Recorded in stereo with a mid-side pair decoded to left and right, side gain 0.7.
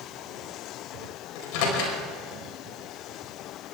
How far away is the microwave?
About 5 m.